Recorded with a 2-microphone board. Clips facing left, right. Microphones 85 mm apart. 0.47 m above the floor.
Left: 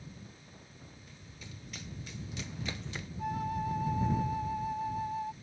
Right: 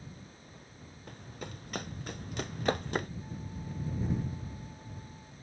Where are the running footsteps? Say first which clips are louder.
Right 11 dB; 55° right (ahead or behind); by 3.1 s 50° right (ahead or behind).